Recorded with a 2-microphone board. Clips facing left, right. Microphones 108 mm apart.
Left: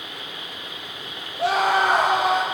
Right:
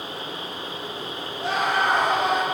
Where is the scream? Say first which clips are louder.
Left 4 dB; 80° left, 6.5 m.